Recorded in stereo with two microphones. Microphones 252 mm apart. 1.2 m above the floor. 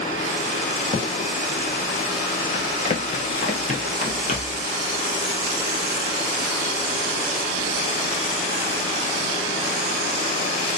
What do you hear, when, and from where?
0.9 s a gunshot: 25° left (ahead or behind), 1.0 m
2.5 s running footsteps: 25° left (ahead or behind), 1.2 m; by 4.7 s 30° left (ahead or behind), 2 m